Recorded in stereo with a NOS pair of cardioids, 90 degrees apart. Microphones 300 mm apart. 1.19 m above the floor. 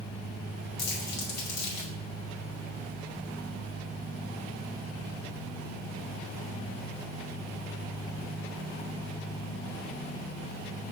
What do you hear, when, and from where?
0.8 s crumpling: 70° left, 2.5 m